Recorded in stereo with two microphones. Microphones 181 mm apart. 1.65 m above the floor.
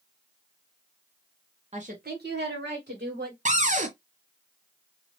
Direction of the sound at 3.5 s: 45° right (ahead or behind).